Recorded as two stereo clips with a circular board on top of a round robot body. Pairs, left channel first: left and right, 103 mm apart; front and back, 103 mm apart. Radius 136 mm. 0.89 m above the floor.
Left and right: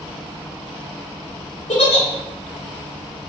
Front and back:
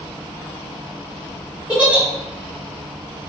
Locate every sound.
1.7 s a giggle: 100° left, 0.7 m